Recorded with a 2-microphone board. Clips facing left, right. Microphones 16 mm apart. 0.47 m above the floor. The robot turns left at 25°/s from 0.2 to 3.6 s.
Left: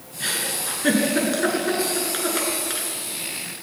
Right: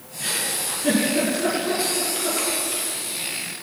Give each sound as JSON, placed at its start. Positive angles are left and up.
{"t": 0.2, "sound": "a giggle", "side_deg": 35, "distance_m": 7.5}